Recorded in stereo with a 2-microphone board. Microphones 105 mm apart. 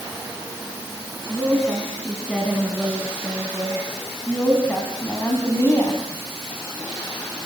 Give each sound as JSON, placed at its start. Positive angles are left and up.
{"t": 1.3, "sound": "a woman speaking", "side_deg": -5, "distance_m": 4.5}